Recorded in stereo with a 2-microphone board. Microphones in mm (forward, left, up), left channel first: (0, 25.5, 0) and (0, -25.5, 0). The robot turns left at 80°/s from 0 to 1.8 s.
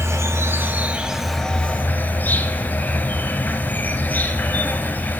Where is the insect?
80° right, 0.9 m; by 5.2 s 135° left, 0.9 m.